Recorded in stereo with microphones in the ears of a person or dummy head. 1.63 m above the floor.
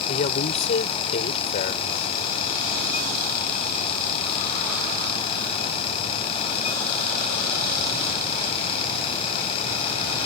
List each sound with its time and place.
0.1 s a woman speaking: 40° left (ahead or behind)